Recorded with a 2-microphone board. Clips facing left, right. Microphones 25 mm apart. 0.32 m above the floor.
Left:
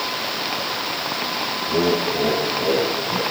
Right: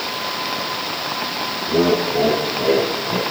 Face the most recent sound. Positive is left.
turn(degrees=-55)  # may be behind; listen again after turning